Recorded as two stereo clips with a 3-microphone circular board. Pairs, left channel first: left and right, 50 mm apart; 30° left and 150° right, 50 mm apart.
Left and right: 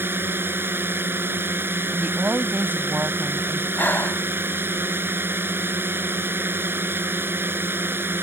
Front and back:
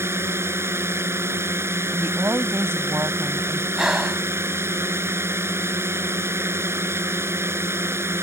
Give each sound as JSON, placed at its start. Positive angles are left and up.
{"t": 0.0, "sound": "a drone", "azimuth_deg": -125}
{"t": 1.9, "sound": "a woman speaking", "azimuth_deg": -135}
{"t": 3.8, "sound": "breathing", "azimuth_deg": 130}